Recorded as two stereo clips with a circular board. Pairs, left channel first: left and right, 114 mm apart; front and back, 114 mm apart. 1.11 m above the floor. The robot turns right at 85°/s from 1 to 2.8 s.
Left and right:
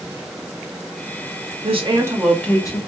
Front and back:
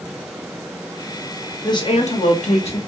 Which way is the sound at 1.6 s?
60° right.